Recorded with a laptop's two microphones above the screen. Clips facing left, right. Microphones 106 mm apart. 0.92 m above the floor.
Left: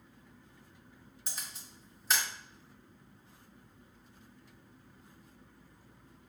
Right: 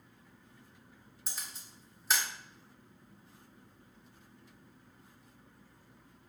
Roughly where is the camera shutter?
Centre.